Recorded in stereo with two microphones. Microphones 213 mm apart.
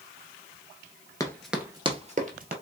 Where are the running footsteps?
15° left (ahead or behind), 1.0 m; by 2.5 s 45° right (ahead or behind), 1.6 m.